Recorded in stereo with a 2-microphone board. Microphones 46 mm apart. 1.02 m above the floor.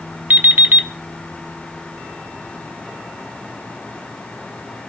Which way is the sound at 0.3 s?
50° right (ahead or behind).